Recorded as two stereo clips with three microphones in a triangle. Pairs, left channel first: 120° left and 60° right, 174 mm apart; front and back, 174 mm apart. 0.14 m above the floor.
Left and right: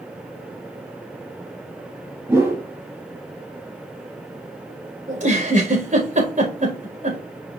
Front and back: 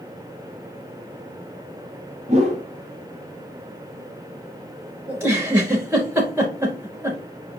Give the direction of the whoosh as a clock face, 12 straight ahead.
4 o'clock.